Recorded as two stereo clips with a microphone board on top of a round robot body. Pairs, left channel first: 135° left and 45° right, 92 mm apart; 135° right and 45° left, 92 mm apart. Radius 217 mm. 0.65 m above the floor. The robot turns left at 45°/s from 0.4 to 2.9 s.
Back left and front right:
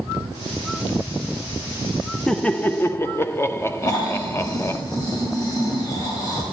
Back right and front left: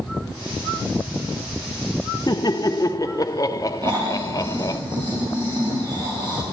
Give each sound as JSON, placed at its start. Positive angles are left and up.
{"t": 2.3, "sound": "laughter", "azimuth_deg": -140, "distance_m": 1.1}
{"t": 3.8, "sound": "snoring", "azimuth_deg": 85, "distance_m": 4.5}